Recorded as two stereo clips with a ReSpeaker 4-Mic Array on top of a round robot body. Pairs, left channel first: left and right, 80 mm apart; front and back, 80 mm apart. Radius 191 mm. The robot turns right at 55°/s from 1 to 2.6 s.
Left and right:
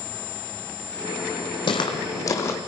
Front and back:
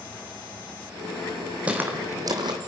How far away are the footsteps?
About 1.2 m.